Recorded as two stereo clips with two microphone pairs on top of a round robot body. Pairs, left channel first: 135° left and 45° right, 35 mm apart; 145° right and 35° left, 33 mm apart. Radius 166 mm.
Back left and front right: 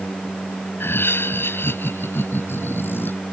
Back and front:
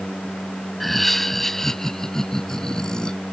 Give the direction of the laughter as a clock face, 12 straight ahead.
8 o'clock.